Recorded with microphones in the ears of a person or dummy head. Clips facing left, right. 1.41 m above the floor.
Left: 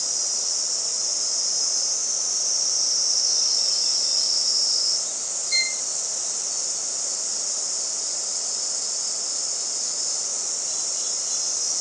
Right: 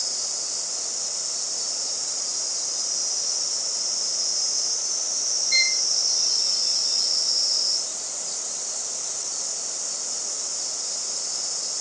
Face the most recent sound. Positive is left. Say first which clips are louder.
# right 2 dB
turn(degrees=-20)  # may be behind; listen again after turning